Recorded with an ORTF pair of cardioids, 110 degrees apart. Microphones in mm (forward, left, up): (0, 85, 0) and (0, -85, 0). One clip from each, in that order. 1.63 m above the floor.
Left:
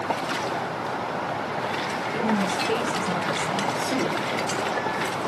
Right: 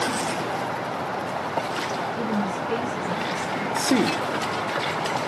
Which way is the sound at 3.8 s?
50° right.